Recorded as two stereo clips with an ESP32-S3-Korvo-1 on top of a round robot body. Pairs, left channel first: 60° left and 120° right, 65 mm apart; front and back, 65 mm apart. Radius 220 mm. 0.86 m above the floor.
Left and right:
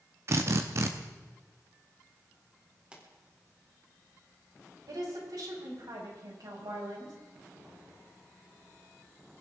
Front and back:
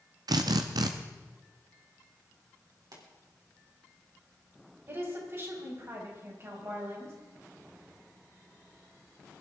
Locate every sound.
0.3 s a drill: 165° right, 0.6 m
2.9 s a pop: 165° left, 4 m
4.9 s a woman speaking: 130° right, 6 m